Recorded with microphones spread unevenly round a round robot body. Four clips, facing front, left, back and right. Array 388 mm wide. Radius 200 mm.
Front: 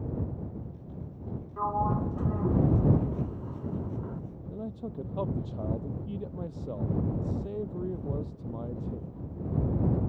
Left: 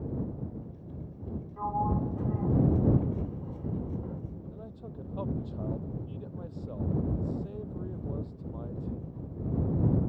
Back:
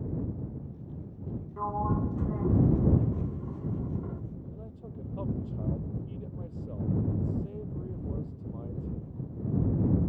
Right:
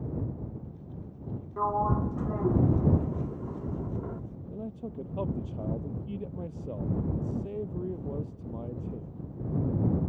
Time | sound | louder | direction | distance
1.6 | a sliding door | right 3 dB, front 2 dB | 95° right | ?
4.5 | a man speaking | right 6 dB, front 7 dB | 40° right | ?